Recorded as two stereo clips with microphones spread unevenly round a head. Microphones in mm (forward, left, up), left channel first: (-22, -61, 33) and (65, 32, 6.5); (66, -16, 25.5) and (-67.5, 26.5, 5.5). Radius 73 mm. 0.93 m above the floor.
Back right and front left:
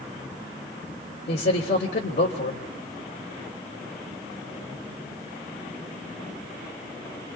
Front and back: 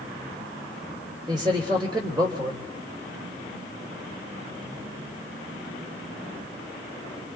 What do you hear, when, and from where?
1.3 s a man speaking: 135° right, 3 m